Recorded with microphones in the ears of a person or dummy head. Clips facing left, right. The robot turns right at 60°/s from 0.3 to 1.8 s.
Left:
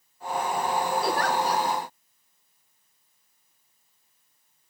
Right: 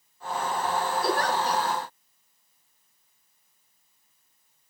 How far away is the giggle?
About 2 m.